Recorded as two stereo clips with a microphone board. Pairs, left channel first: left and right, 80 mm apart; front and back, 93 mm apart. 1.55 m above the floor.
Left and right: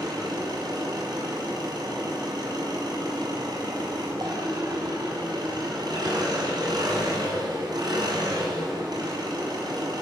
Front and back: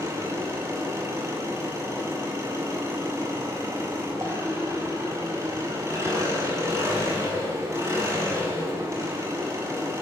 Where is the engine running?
120° right, 7.5 m.